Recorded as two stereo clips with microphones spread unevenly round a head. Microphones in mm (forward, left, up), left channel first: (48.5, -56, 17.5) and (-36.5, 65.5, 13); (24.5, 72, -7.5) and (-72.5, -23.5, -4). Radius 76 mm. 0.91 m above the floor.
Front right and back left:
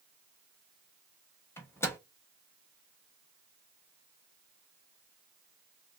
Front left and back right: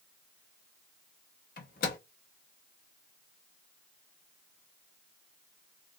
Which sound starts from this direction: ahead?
A microwave, at 1.6 s.